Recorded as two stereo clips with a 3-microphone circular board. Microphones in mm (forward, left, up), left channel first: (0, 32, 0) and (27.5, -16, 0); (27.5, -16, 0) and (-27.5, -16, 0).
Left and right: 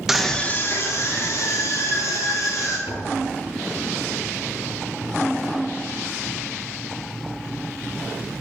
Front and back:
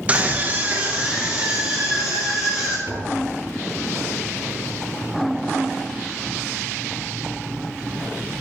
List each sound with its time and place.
0.1 s a scream: 140° right, 0.9 m; by 2.8 s 105° left, 4 m
2.9 s tapping: 145° left, 5.5 m